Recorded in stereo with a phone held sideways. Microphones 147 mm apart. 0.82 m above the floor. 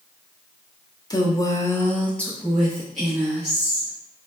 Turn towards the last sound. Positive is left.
turn(degrees=-5)  # may be behind; listen again after turning